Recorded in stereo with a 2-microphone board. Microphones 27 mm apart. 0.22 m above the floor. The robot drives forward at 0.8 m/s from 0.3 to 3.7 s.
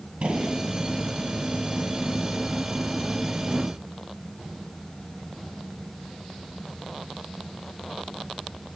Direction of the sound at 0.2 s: 45° right (ahead or behind).